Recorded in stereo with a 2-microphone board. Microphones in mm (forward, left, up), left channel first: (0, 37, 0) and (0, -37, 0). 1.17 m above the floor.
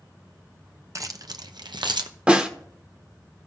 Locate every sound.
0.9 s keys jangling: 45° right (ahead or behind), 0.6 m; by 2.1 s 80° right, 0.7 m
2.3 s a snare drum: 15° right (ahead or behind), 0.8 m